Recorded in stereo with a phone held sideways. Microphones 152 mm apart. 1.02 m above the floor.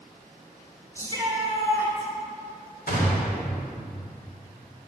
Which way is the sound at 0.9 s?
20° left (ahead or behind).